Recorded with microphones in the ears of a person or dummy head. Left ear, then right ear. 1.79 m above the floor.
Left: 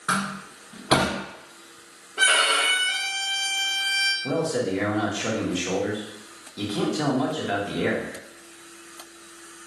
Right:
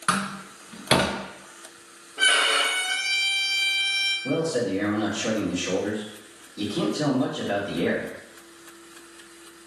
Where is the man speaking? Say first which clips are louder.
Even; 35° left (ahead or behind), 1.1 m.